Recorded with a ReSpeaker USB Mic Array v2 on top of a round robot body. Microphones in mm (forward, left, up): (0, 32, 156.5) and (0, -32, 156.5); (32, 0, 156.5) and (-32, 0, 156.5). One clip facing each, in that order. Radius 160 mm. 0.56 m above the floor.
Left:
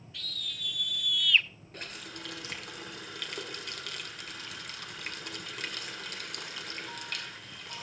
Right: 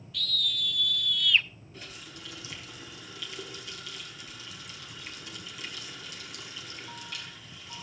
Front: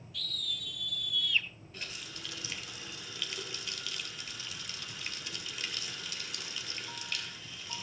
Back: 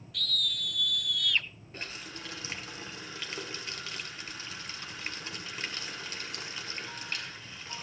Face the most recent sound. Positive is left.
turn(degrees=125)